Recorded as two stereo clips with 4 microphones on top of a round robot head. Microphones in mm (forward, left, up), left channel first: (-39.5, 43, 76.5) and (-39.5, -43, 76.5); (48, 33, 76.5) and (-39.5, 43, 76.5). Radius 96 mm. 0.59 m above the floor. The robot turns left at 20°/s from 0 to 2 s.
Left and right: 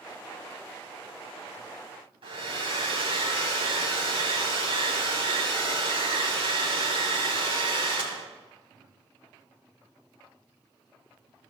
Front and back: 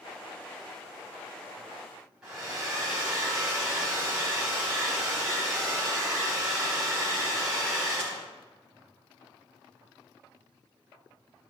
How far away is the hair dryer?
About 3.5 m.